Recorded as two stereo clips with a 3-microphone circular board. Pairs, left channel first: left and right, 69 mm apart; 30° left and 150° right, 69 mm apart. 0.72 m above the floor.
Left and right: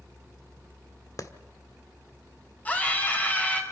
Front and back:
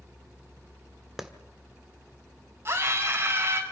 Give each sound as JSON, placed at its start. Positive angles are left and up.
{"t": 1.2, "sound": "a clap", "azimuth_deg": 125, "distance_m": 1.3}
{"t": 2.6, "sound": "a scream", "azimuth_deg": 155, "distance_m": 4.5}